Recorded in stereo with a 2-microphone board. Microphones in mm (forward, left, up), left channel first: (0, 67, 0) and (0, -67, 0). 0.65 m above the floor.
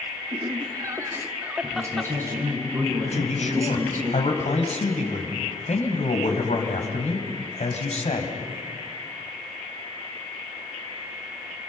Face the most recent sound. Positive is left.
turn(degrees=60)  # may be behind; listen again after turning